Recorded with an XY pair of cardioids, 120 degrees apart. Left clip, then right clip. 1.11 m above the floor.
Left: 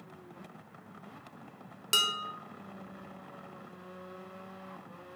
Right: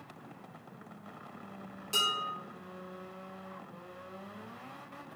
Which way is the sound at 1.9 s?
70° left.